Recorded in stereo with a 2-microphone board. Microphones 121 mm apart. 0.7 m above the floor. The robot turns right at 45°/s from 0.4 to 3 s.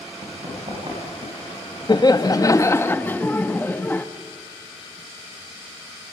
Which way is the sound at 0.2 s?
65° right (ahead or behind).